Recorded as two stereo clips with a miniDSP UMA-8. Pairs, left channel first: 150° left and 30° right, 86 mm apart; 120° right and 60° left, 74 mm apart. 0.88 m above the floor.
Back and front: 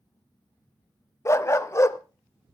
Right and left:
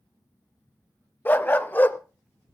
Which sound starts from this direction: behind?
A dog barking, at 1.2 s.